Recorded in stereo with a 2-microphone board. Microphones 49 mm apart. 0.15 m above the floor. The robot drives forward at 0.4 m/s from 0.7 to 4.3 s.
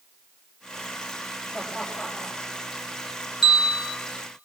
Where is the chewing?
No chewing in this recording.